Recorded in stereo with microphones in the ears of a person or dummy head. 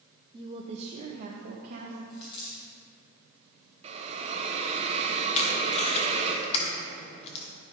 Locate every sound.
0.3 s a woman speaking: 15° right (ahead or behind), 0.7 m; by 2.0 s 45° right (ahead or behind), 1.5 m
2.1 s a dropped coin: 35° left (ahead or behind), 3.5 m
3.8 s a hiss: 30° right (ahead or behind), 1.0 m
5.3 s tape being pulled: 40° left (ahead or behind), 1.2 m